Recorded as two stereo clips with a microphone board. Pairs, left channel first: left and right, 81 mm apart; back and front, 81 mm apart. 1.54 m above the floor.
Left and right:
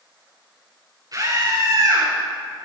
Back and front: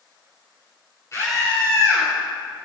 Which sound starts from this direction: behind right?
A scream, at 1.1 s.